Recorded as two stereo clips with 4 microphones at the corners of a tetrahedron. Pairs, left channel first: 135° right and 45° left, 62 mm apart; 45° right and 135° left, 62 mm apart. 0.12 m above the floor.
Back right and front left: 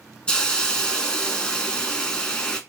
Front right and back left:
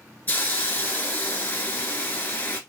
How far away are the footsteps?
No footsteps in this recording.